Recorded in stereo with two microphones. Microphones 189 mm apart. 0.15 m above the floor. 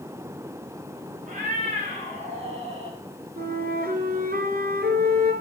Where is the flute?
55° right (ahead or behind), 1.7 m.